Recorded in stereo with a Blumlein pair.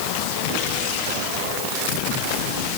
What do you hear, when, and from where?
Only background noise.